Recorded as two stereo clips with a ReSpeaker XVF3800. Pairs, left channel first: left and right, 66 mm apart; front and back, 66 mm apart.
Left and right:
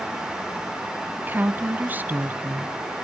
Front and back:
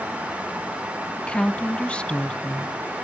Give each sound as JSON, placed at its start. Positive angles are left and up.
{"t": 1.2, "sound": "a woman speaking", "azimuth_deg": -60, "distance_m": 1.2}